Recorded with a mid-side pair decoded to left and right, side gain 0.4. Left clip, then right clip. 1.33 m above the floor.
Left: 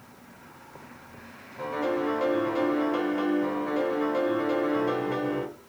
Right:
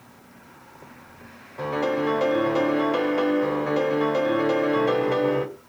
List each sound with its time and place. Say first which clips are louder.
1.6 s a piano: right 4 dB; 50° right, 0.9 m